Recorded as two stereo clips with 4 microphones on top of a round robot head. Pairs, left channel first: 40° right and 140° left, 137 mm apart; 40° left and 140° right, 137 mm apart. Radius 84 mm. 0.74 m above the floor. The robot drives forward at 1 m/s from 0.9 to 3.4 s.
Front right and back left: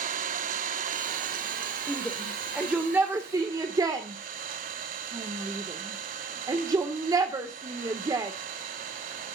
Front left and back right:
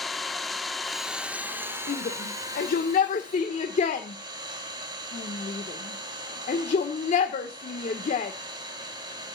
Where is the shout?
45° left, 3 m; by 8.3 s 75° left, 2.0 m.